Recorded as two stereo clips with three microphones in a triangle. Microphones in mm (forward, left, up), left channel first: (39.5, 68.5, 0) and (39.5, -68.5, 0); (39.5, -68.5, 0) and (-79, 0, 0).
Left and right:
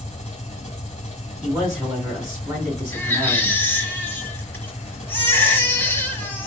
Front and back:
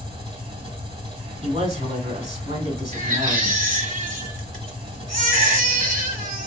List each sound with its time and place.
0.0 s an engine running: 115° left, 1.8 m
1.4 s a man speaking: 170° right, 3 m
2.9 s a baby crying: 165° left, 1.2 m